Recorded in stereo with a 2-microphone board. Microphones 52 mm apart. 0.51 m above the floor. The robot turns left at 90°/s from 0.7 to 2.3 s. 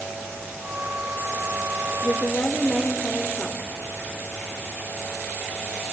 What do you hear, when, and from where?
2.0 s a woman speaking: 45° left (ahead or behind), 1.6 m; by 3.7 s 30° left (ahead or behind), 1.6 m